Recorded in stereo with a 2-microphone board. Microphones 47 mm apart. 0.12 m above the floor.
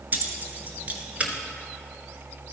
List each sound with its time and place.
0.1 s keys jangling: 40° right (ahead or behind), 1.2 m; by 1.3 s 30° right (ahead or behind), 1.2 m